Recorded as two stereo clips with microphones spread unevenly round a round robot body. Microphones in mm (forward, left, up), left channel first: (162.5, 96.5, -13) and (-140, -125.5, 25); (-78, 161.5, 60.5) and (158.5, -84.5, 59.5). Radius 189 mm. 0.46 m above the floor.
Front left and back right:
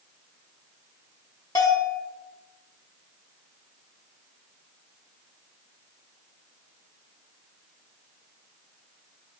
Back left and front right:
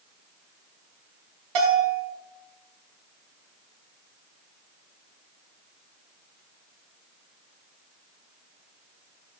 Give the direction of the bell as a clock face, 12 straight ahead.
2 o'clock.